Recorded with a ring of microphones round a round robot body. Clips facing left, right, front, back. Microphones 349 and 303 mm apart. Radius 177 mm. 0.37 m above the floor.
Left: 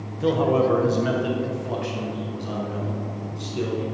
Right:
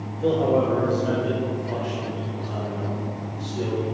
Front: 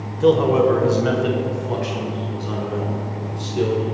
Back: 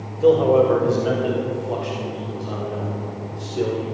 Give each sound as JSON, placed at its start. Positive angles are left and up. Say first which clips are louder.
{"t": 0.2, "sound": "a man speaking", "louder": "even, even", "azimuth_deg": 45, "distance_m": 1.4}